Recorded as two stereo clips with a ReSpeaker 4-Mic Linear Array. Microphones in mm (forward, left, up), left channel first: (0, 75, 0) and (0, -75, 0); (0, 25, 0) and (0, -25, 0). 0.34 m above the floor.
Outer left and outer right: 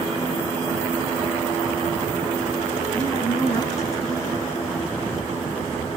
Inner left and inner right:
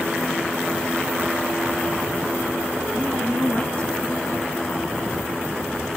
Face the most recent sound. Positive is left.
turn(degrees=25)  # may be behind; listen again after turning